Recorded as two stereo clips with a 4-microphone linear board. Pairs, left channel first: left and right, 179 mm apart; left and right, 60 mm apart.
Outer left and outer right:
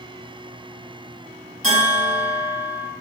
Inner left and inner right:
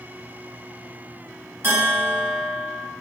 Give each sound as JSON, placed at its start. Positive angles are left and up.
{"t": 1.6, "sound": "a bell", "side_deg": -40, "distance_m": 1.5}